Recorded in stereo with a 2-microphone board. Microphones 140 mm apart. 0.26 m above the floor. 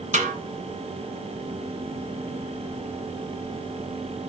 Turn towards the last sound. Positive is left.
turn(degrees=-65)  # may be behind; listen again after turning